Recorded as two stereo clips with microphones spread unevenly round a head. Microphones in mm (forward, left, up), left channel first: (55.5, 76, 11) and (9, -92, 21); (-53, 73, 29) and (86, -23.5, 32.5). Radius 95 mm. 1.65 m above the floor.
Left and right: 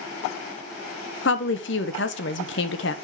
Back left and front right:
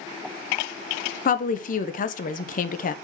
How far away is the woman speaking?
About 0.9 m.